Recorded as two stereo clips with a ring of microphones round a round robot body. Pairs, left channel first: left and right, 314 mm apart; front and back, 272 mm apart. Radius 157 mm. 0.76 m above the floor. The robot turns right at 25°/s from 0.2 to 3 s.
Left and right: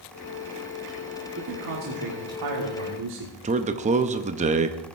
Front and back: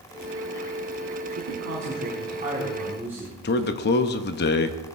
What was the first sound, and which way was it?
A man speaking, 140° right.